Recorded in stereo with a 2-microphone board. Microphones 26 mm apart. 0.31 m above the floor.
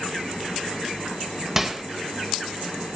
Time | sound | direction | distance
1.6 | a microwave | 15° right (ahead or behind) | 0.9 m